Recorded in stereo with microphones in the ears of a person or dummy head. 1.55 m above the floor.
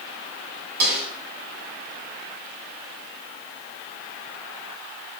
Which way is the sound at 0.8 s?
50° right (ahead or behind).